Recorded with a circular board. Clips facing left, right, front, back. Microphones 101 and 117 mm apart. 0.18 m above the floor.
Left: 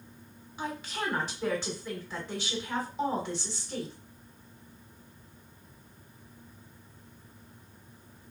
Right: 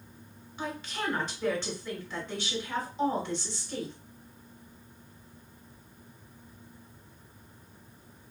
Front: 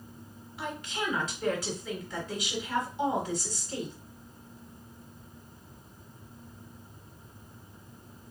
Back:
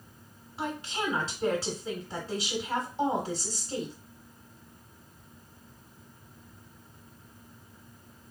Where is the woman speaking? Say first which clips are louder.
Even, back 2 dB; 165° left, 1.4 m.